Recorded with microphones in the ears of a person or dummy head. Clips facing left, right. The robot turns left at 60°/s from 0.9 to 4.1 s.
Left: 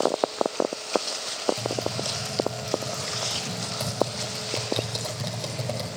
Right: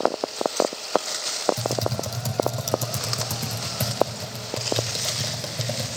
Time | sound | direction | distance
1.6 | typing on a keyboard | 25° right (ahead or behind) | 2.5 m